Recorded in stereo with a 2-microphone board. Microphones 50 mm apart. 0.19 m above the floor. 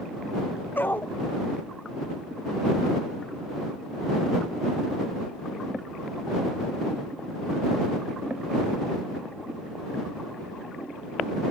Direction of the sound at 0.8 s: 45° left (ahead or behind).